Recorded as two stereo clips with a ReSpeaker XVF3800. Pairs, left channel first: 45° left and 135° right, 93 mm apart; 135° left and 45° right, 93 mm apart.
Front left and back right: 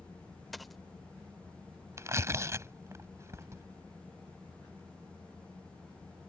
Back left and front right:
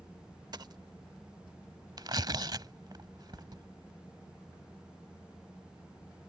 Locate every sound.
0.5 s a dropped coin: 45° right
2.0 s tearing paper: 80° right